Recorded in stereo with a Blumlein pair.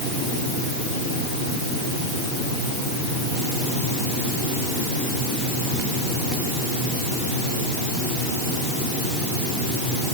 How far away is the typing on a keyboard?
I don't hear typing on a keyboard.